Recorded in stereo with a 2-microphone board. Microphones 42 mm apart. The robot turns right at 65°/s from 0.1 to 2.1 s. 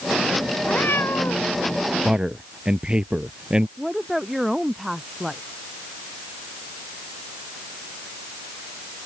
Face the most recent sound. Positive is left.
turn(degrees=0)  # may be behind; listen again after turning